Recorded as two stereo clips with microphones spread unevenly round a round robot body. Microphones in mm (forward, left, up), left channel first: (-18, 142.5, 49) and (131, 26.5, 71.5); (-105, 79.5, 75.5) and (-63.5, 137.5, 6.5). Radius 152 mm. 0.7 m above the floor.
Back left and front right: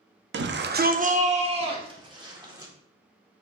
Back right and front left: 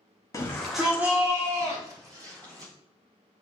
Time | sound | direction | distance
0.3 | a shout | 35° right | 0.9 m